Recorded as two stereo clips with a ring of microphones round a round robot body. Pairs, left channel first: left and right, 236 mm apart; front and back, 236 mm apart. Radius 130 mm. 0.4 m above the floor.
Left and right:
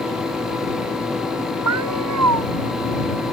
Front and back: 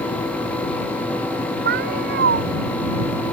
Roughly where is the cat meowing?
Behind right.